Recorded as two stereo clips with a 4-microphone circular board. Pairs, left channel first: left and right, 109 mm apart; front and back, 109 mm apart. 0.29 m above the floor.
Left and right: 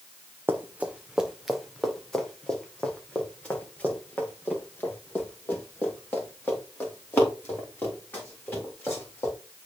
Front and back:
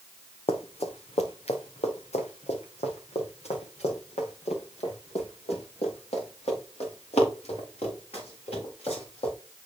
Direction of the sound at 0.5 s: 20° right.